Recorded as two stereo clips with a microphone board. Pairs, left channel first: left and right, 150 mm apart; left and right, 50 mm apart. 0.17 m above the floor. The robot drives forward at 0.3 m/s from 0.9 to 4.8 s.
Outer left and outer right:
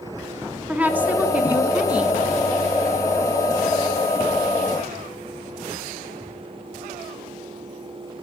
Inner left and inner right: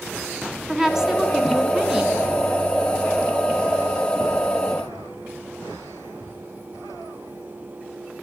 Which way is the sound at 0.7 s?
10° right (ahead or behind).